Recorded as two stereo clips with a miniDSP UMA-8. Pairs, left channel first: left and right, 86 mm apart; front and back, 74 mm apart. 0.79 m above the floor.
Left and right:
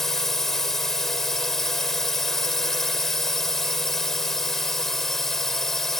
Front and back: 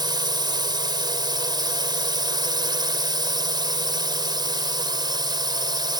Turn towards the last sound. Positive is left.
turn(degrees=175)